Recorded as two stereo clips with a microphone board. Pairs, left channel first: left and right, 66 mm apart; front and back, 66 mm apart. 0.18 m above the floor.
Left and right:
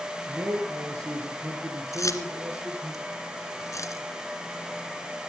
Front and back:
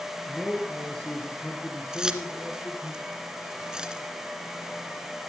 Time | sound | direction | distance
0.3 | a man speaking | 75° right | 4 m
1.9 | keys jangling | 105° left | 1.7 m